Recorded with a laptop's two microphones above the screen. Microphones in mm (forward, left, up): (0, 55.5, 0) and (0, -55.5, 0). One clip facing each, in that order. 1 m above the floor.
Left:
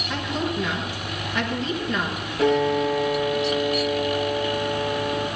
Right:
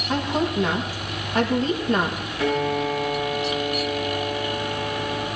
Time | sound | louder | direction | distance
0.1 | a woman speaking | right 4 dB | 40° right (ahead or behind) | 1.6 m
2.4 | a piano | left 3 dB | 50° left (ahead or behind) | 9 m